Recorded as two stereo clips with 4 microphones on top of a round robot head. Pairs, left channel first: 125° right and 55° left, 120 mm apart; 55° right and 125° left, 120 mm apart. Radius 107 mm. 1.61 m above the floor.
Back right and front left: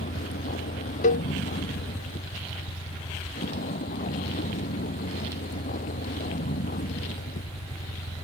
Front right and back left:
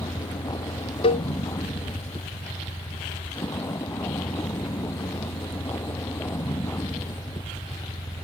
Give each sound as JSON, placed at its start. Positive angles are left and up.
{"t": 0.0, "sound": "a vehicle", "azimuth_deg": -120}
{"t": 1.0, "sound": "a cowbell", "azimuth_deg": -105}